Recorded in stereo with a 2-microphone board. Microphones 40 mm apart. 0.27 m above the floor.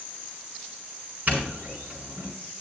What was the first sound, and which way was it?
A doorbell, 50° right (ahead or behind).